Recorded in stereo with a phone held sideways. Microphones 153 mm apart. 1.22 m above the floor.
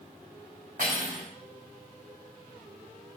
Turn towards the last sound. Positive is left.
turn(degrees=-65)  # may be behind; listen again after turning